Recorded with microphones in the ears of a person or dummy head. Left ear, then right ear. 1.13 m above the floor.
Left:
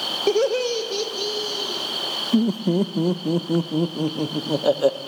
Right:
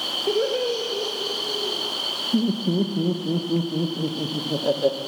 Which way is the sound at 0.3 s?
65° left (ahead or behind).